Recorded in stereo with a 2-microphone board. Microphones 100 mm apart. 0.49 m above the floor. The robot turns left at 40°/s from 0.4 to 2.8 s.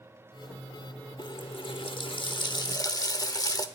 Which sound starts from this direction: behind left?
A running tap, at 1.2 s.